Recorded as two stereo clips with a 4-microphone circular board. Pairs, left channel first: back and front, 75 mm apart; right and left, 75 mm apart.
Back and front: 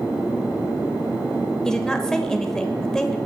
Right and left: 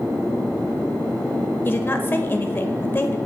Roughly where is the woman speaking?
Right.